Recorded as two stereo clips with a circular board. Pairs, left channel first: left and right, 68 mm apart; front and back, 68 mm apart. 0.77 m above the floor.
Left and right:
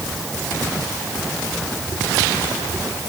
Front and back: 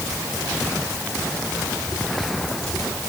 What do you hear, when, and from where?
Only background noise.